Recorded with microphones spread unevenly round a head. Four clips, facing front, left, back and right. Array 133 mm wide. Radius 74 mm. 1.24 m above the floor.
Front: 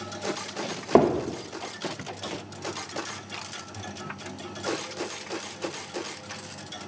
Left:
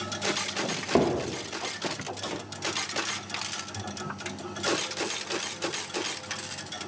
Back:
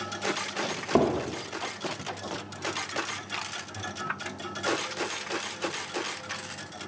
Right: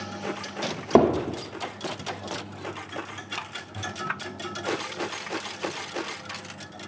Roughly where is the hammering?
Ahead right.